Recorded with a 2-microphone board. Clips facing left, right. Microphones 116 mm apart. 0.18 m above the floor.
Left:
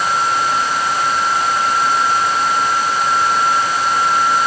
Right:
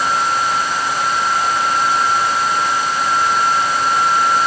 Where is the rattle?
No rattle in this recording.